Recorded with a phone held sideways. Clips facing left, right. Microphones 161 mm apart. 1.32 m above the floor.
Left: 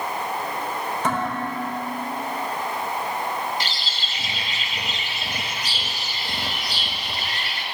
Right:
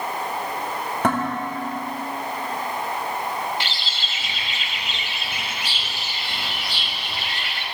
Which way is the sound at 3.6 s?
40° left (ahead or behind).